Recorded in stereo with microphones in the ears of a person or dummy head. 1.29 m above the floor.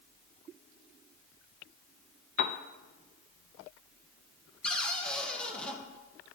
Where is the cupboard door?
10° left (ahead or behind), 0.8 m.